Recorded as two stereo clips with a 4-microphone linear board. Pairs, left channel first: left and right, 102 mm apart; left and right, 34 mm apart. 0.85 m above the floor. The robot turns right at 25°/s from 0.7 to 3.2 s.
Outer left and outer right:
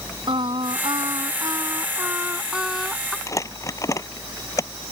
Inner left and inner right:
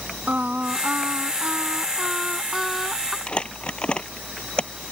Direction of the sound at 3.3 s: 30° left (ahead or behind).